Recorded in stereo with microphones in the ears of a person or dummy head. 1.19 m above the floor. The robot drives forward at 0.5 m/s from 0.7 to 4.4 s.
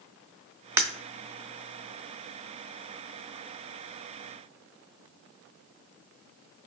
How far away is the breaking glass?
About 0.6 m.